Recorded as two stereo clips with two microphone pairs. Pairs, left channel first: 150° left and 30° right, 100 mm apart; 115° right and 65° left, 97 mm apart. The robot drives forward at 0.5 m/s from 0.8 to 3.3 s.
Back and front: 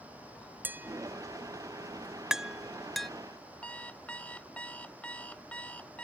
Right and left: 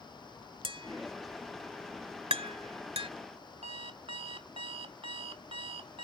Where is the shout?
No shout in this recording.